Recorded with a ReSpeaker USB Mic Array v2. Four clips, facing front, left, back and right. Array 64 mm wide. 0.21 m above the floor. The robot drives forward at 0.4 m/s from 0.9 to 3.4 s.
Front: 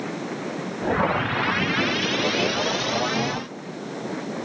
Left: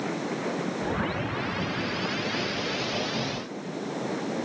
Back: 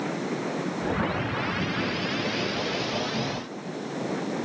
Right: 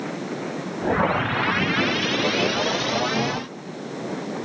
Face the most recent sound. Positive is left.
No sound to turn to.